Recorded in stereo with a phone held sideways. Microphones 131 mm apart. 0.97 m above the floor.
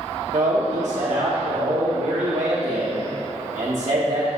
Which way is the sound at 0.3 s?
55° right (ahead or behind).